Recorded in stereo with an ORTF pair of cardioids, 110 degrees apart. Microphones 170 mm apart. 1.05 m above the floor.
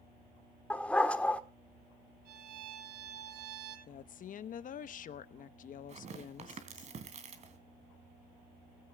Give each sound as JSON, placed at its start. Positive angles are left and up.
{"t": 0.7, "sound": "a dog barking", "azimuth_deg": 5, "distance_m": 1.3}
{"t": 2.2, "sound": "a violin", "azimuth_deg": -60, "distance_m": 10.0}
{"t": 3.9, "sound": "a woman speaking", "azimuth_deg": 50, "distance_m": 1.0}
{"t": 5.9, "sound": "tearing paper", "azimuth_deg": -40, "distance_m": 3.0}